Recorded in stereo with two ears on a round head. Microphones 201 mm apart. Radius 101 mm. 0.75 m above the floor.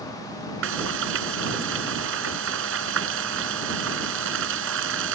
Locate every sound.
0.6 s frying: 60° right (ahead or behind)